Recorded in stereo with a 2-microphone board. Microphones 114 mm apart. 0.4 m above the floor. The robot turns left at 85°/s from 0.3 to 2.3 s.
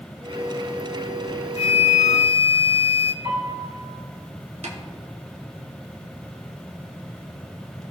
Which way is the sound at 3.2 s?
70° right (ahead or behind).